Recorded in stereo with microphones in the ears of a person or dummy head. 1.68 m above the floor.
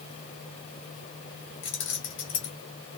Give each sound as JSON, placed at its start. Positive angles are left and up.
{"t": 1.6, "sound": "keys jangling", "side_deg": 30, "distance_m": 1.3}